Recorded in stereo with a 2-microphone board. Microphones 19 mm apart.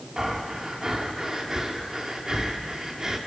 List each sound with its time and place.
0.2 s breathing: 25° right (ahead or behind), 2 m